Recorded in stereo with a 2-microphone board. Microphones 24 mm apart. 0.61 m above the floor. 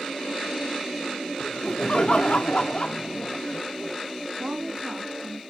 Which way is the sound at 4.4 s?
30° right (ahead or behind).